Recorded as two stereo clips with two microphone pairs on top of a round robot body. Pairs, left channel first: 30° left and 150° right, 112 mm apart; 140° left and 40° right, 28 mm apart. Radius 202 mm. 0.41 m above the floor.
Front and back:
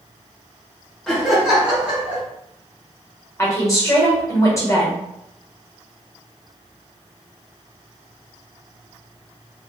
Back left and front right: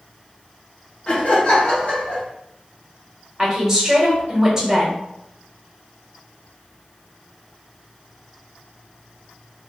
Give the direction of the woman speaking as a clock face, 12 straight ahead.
1 o'clock.